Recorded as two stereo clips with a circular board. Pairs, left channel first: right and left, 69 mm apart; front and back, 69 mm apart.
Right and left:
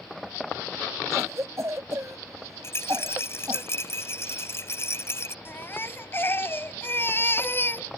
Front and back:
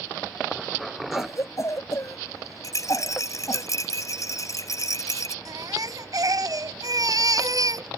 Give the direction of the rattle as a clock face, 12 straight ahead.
1 o'clock.